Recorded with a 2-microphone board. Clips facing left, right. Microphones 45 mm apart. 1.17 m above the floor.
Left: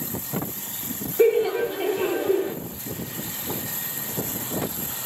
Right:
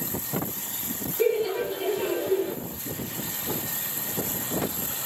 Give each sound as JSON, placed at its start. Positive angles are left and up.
{"t": 1.2, "sound": "laughter", "side_deg": 30, "distance_m": 0.6}